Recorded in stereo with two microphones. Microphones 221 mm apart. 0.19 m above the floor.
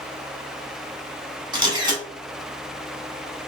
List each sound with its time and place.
1.5 s a camera shutter: 20° right (ahead or behind), 1.1 m